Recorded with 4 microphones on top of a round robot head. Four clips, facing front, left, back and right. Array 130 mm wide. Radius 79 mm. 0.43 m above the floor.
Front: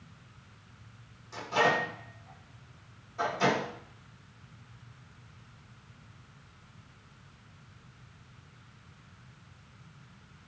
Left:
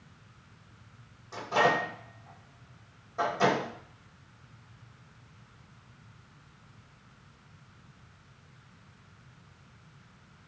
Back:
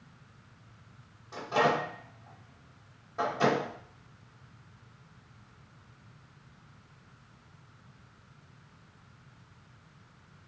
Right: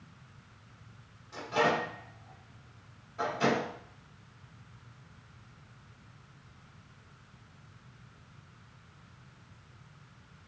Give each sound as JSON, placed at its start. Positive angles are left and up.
{"t": 1.3, "sound": "a microwave", "azimuth_deg": 130, "distance_m": 2.0}